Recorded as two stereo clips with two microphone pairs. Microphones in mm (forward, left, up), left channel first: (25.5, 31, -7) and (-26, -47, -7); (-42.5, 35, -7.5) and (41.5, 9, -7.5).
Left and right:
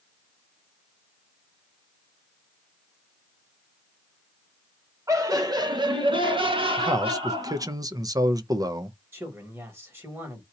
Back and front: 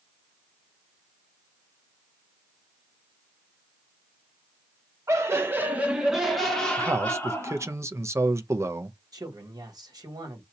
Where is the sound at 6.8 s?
75° right, 0.6 m.